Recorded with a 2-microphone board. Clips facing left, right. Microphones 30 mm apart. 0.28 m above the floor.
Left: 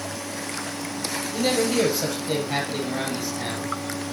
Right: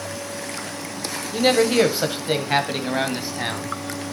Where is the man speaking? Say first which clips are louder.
Right 5 dB; 30° right (ahead or behind), 1.1 m; by 3.8 s 35° right (ahead or behind), 1.9 m.